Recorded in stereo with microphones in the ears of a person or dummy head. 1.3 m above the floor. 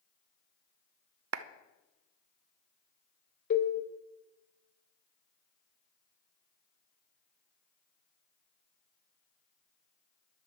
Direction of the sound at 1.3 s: 85° right.